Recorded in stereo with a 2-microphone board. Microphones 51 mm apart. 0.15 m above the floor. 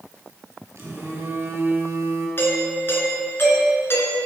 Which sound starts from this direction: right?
A phone buzzing, at 0.8 s.